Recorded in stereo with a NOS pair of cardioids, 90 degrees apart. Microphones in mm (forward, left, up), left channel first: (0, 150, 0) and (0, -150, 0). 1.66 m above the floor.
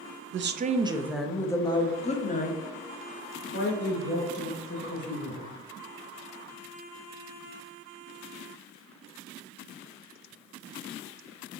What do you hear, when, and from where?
0.3 s a woman speaking: 45° right, 0.5 m; by 5.5 s 40° left, 2.5 m